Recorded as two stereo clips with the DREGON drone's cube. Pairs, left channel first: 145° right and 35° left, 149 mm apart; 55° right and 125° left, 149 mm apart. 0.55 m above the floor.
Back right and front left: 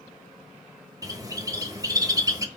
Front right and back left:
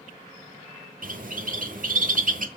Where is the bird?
100° left, 1.1 m.